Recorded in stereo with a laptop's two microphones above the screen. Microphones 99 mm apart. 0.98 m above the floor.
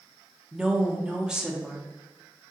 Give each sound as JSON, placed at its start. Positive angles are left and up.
{"t": 0.5, "sound": "a woman speaking", "side_deg": -10, "distance_m": 0.6}